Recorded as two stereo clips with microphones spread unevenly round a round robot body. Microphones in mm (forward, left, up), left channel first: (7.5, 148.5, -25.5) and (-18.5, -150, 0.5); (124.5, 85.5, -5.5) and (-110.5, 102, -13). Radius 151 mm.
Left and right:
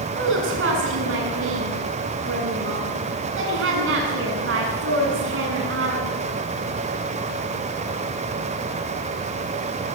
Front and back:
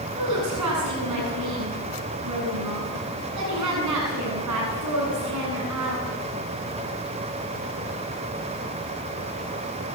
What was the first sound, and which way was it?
A woman speaking, 145° right.